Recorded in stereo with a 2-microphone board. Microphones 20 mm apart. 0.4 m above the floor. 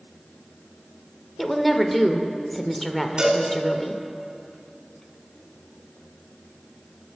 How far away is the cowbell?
About 3 m.